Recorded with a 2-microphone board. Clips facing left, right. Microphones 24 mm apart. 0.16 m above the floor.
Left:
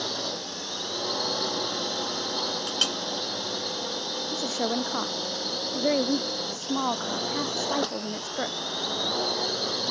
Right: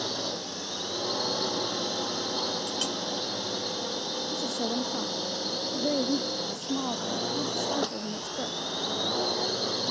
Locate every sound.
0.0 s a drone: 10° left (ahead or behind)
2.7 s a clink: 50° left (ahead or behind)
4.3 s a woman speaking: 75° left (ahead or behind)